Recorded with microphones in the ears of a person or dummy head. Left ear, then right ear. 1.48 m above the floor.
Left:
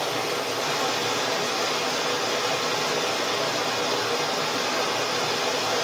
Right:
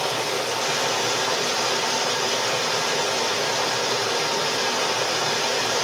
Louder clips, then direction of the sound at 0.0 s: Right 2 dB; 5° left (ahead or behind).